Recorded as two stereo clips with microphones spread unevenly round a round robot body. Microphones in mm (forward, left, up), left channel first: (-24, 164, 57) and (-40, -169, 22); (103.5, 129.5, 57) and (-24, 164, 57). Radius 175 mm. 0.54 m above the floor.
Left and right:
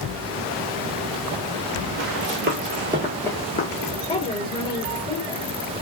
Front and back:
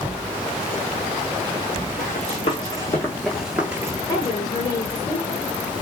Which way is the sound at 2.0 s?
45° right.